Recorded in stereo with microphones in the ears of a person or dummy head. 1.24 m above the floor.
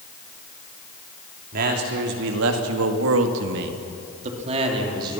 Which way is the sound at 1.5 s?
55° right (ahead or behind).